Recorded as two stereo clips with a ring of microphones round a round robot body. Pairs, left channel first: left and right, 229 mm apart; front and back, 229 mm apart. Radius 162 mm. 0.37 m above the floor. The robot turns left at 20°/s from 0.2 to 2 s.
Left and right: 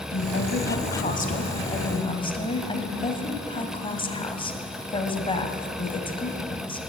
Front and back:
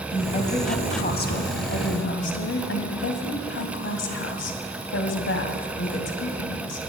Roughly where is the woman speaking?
Ahead left.